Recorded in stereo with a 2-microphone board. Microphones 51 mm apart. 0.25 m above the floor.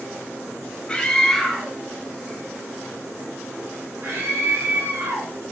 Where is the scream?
20° left (ahead or behind), 1.1 m; by 5.3 s 55° right (ahead or behind), 3 m.